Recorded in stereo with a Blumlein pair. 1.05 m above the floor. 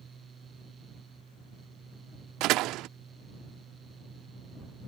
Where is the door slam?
40° right.